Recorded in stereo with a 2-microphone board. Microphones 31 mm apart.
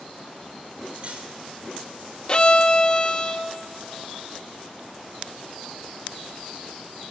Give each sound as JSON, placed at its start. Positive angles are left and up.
{"t": 0.9, "sound": "cutlery clinking", "side_deg": -45, "distance_m": 3.0}
{"t": 2.3, "sound": "a violin", "side_deg": 30, "distance_m": 0.6}